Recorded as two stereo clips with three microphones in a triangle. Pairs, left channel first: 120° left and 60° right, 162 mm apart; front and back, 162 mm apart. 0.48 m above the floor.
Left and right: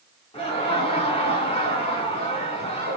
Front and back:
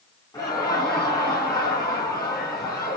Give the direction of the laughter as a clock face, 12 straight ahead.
10 o'clock.